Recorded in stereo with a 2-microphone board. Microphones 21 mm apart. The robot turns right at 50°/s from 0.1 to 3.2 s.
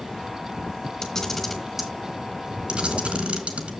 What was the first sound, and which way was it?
A camera shutter, 25° left (ahead or behind).